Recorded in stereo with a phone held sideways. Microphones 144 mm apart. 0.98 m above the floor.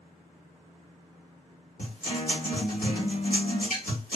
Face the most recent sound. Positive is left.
turn(degrees=85)